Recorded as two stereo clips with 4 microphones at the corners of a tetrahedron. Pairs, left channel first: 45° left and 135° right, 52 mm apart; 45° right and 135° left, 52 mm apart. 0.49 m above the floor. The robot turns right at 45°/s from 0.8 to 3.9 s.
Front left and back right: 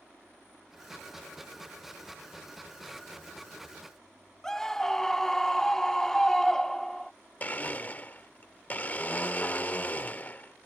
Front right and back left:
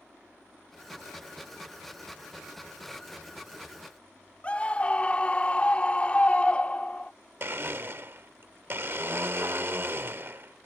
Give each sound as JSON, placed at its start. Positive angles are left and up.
{"t": 4.4, "sound": "a scream", "azimuth_deg": -25}
{"t": 7.4, "sound": "a blender", "azimuth_deg": 100}